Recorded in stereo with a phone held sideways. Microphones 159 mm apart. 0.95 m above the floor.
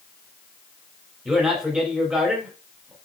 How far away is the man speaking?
About 3.5 m.